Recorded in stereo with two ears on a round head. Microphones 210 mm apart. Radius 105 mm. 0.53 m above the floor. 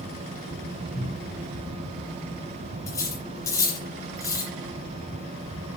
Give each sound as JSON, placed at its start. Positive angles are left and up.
{"t": 0.9, "sound": "a cupboard door", "side_deg": 20, "distance_m": 3.0}
{"t": 2.9, "sound": "cutlery clinking", "side_deg": 15, "distance_m": 7.5}